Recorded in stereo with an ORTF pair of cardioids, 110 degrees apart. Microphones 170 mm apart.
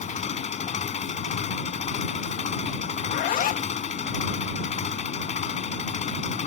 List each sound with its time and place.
0.0 s an engine running: 45° left
3.0 s a zipper: 60° left